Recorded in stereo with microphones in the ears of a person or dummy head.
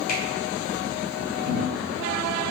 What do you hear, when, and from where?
0.1 s a finger snap: 50° left (ahead or behind), 1.1 m
1.4 s a cupboard door: 10° left (ahead or behind), 1.9 m